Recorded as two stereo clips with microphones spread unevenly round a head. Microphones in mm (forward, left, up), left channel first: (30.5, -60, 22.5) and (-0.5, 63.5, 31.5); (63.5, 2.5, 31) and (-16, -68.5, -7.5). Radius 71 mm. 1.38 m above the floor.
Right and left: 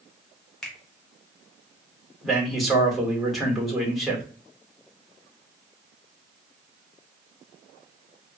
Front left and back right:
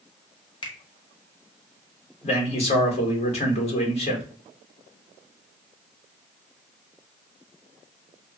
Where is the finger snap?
10° left, 0.7 m.